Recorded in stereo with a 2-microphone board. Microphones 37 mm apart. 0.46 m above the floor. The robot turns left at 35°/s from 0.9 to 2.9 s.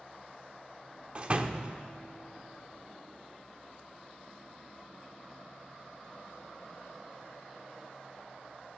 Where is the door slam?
30° right (ahead or behind), 0.7 m.